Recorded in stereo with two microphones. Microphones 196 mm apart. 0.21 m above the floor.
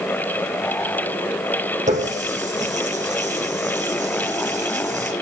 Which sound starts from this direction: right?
A running tap, at 1.9 s.